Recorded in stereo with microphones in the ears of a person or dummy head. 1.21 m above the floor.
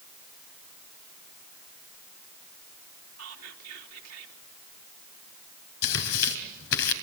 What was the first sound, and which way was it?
Whispering, 85° right.